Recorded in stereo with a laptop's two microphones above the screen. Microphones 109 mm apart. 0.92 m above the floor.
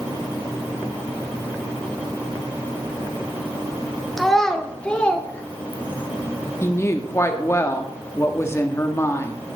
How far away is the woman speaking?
About 1.2 m.